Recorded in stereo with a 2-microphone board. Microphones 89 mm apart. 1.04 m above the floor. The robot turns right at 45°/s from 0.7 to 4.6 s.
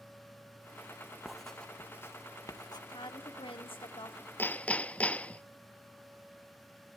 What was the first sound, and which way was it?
Writing, 5° right (ahead or behind).